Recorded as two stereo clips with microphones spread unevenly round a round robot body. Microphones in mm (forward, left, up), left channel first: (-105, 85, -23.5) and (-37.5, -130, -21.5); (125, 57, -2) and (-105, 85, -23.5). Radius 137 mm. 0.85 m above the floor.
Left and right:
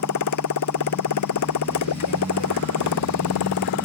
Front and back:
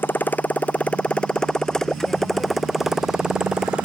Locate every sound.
0.0 s a motorcycle: 75° left; by 3.9 s 85° left